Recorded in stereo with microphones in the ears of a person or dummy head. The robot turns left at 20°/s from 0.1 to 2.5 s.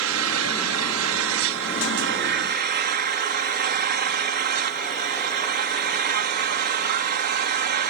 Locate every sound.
0.0 s an engine running: 75° right; by 7.9 s 125° right